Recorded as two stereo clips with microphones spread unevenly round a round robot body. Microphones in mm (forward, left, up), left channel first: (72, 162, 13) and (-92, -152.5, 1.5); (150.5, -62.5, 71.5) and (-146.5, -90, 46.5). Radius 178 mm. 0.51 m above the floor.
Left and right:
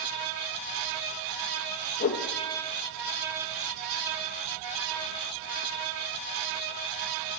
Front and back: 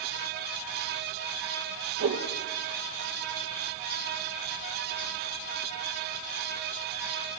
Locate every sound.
2.0 s a whoosh: 130° left, 3 m